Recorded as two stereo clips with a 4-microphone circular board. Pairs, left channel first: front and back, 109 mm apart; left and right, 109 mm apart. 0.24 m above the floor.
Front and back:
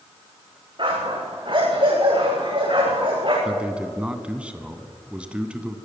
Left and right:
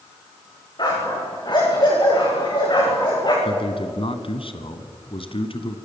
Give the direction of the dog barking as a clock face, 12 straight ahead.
7 o'clock.